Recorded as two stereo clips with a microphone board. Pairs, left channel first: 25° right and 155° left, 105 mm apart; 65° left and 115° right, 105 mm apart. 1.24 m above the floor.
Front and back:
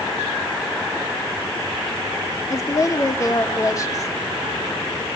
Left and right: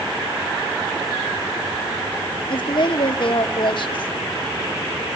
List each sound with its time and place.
2.5 s a woman speaking: 35° left, 1.9 m